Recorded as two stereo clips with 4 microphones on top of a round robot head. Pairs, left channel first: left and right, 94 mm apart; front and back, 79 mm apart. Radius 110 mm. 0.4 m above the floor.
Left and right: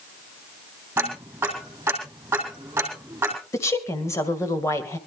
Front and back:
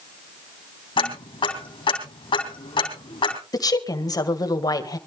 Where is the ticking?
15° right, 3.5 m.